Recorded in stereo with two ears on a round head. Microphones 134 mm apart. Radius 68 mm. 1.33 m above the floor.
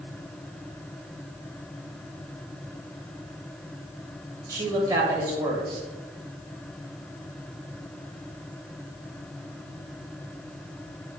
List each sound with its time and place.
4.5 s a woman speaking: 25° right (ahead or behind), 1.4 m